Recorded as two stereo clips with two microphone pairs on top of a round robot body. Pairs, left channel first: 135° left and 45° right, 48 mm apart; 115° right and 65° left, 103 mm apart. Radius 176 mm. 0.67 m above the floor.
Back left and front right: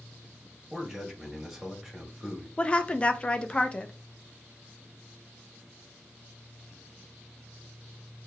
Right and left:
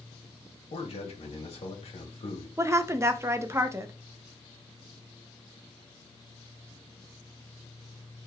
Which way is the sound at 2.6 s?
90° left.